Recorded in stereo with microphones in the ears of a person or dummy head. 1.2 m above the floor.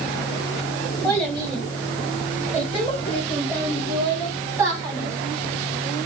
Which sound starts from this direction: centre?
A child speaking, at 1.0 s.